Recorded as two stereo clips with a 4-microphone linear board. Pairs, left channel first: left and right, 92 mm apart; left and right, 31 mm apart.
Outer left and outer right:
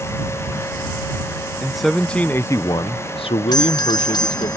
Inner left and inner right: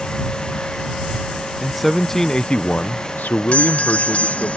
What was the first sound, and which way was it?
A man speaking, 5° right (ahead or behind).